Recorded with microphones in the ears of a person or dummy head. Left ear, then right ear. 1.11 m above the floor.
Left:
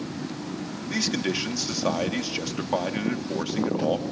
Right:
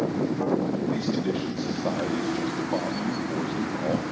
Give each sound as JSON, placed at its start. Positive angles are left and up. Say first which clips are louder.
{"t": 0.9, "sound": "a man speaking", "louder": "left 1 dB", "side_deg": 65, "distance_m": 1.9}